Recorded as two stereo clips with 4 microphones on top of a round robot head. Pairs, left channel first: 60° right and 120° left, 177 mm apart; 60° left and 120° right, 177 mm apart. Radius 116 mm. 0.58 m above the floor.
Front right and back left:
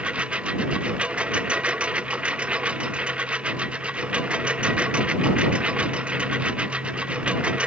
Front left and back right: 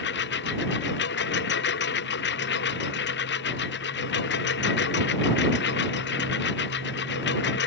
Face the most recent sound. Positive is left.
turn(degrees=35)